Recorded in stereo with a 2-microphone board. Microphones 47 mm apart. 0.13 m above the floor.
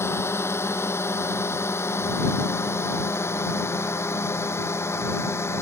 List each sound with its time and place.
0.0 s a drone: 65° left (ahead or behind)